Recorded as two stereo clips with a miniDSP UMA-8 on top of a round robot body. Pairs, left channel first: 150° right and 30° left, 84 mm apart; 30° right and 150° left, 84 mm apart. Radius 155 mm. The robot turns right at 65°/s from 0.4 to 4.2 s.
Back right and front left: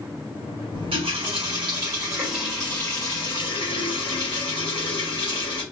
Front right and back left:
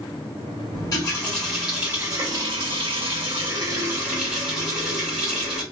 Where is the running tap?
10° left, 1.0 m; by 5.6 s 125° right, 1.0 m.